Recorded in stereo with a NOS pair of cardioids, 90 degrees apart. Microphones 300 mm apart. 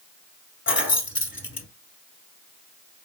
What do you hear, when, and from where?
0.7 s keys jangling: 40° left, 1.6 m